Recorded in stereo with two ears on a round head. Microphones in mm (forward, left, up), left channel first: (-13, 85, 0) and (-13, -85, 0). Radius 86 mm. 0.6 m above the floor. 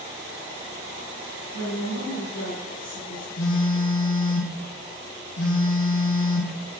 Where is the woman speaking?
80° left, 8.5 m.